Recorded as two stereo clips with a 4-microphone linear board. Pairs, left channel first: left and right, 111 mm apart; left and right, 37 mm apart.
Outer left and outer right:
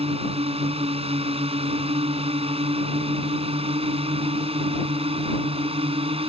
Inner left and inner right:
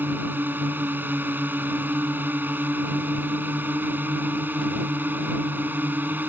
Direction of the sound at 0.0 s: 60° right (ahead or behind).